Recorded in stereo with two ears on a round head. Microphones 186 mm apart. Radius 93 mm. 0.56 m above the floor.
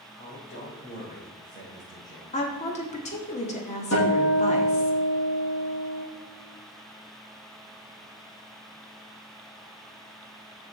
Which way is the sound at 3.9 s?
75° left (ahead or behind).